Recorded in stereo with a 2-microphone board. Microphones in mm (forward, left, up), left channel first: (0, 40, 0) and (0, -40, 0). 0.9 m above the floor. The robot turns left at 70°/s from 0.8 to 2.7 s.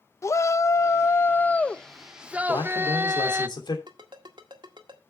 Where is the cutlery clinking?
No cutlery clinking in this recording.